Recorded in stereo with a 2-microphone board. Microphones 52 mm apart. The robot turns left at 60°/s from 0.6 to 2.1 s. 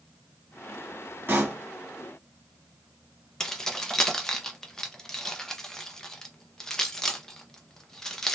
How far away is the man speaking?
No man speaking in this recording.